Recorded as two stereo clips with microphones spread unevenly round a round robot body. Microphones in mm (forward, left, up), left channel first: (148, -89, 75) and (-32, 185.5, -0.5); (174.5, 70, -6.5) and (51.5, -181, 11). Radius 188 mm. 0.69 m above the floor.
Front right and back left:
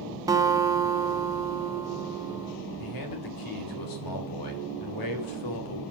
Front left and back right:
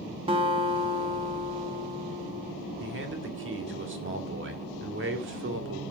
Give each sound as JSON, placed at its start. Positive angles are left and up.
{"t": 0.3, "sound": "a guitar", "azimuth_deg": 175, "distance_m": 0.8}
{"t": 2.8, "sound": "a man speaking", "azimuth_deg": -75, "distance_m": 2.5}